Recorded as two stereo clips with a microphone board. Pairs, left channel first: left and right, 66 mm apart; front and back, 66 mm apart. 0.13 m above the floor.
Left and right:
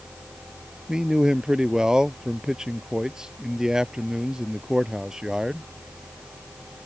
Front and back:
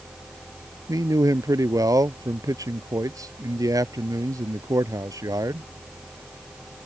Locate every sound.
0.9 s a man speaking: 165° right